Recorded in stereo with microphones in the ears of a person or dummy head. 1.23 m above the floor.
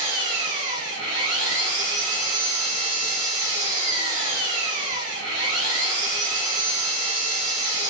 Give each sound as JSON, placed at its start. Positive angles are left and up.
{"t": 0.0, "sound": "an engine running", "side_deg": -65, "distance_m": 3.0}